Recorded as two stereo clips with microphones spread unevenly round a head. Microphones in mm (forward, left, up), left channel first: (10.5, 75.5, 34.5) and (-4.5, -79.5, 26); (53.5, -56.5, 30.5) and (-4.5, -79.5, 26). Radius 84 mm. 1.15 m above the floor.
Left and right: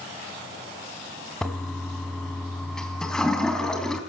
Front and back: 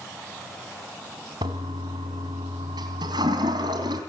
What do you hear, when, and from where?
1.4 s a toilet flushing: 170° left, 3.5 m